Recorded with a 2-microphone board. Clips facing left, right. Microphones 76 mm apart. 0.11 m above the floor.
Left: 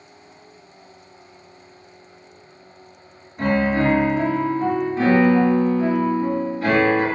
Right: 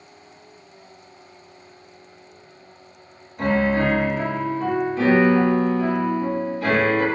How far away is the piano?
About 1.5 m.